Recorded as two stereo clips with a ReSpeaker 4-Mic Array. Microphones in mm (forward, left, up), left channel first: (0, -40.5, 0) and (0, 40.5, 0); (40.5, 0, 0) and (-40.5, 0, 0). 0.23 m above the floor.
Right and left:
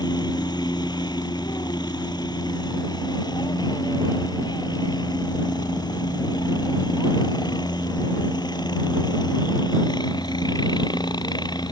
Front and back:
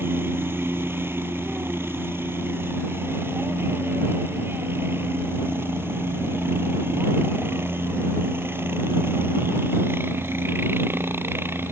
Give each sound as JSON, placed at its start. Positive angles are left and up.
{"t": 0.0, "sound": "a helicopter", "azimuth_deg": -120}